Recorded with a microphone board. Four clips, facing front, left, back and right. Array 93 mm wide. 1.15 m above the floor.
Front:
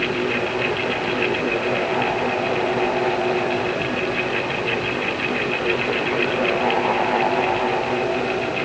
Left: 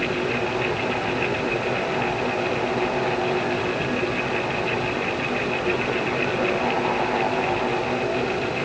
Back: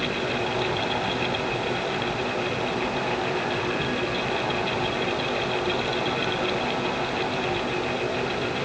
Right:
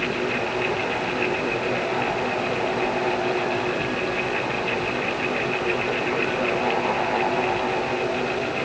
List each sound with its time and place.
Only background noise.